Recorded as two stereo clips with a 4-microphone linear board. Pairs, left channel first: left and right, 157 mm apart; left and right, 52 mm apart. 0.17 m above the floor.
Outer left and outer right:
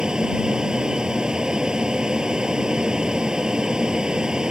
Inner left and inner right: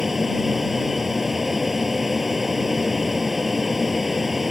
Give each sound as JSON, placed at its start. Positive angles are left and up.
{"t": 0.0, "sound": "an aircraft", "side_deg": -5}